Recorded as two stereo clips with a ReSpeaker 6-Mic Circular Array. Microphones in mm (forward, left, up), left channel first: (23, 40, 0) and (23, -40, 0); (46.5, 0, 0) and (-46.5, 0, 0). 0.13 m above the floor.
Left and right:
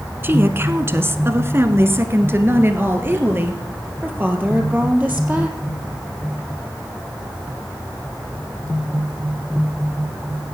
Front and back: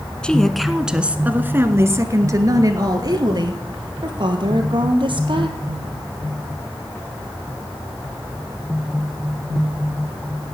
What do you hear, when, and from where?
0.2 s a woman speaking: 70° right, 1.2 m; by 5.5 s 155° right, 3.5 m